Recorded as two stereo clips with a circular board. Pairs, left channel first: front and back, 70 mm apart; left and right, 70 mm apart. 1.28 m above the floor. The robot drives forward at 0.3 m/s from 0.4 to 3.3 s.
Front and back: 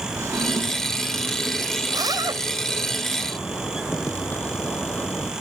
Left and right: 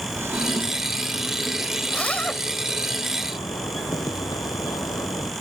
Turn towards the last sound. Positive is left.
turn(degrees=65)